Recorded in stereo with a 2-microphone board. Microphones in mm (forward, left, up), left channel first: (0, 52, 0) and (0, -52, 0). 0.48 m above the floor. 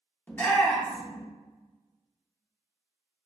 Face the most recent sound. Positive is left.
turn(degrees=20)  # may be behind; listen again after turning